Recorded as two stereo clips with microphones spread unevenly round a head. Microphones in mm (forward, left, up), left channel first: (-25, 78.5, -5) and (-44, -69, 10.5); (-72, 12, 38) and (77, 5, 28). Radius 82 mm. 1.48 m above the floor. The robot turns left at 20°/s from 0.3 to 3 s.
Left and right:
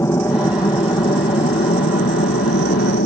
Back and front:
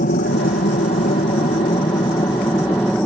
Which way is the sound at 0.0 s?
155° left.